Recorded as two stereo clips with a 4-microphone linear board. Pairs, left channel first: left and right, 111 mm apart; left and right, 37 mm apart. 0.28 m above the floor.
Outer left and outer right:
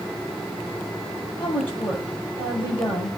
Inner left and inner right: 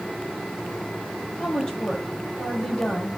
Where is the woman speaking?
20° left (ahead or behind), 7.5 m.